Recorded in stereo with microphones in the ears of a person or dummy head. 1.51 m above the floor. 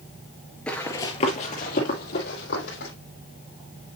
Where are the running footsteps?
5° left (ahead or behind), 1.6 m; by 2.9 s 60° left (ahead or behind), 4 m.